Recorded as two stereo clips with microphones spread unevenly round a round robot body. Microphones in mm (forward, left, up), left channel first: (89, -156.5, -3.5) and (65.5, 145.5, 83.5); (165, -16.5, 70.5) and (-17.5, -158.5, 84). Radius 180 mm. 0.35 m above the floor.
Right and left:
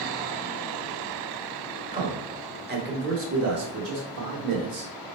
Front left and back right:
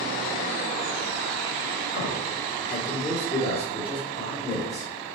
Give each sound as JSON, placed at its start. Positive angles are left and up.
{"t": 1.9, "sound": "a man speaking", "azimuth_deg": 5, "distance_m": 1.2}